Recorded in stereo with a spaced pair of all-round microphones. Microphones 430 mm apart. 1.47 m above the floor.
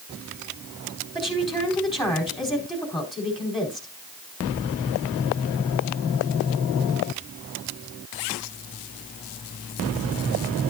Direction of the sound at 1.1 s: Centre (ahead or behind).